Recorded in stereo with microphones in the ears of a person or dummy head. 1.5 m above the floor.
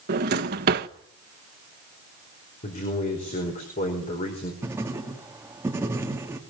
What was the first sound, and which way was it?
A drawer, 45° right (ahead or behind).